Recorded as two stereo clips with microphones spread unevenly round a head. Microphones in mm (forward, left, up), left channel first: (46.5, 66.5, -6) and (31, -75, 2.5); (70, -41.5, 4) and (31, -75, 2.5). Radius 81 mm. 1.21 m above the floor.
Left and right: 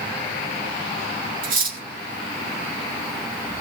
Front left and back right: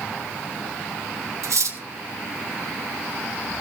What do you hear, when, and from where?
1.4 s cutlery clinking: 130° right, 1.6 m